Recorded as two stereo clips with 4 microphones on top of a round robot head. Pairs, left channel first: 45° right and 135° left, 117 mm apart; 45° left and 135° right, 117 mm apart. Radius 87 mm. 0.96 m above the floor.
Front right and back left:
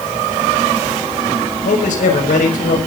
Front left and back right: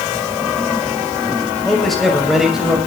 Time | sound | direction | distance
1.6 | a man speaking | 40° right | 6.5 m